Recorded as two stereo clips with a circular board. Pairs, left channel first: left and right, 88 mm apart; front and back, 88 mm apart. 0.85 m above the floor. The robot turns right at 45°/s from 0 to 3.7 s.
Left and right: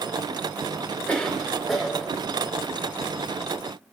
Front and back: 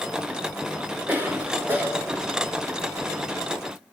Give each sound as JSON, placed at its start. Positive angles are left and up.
{"t": 1.1, "sound": "a cough", "azimuth_deg": 150, "distance_m": 0.5}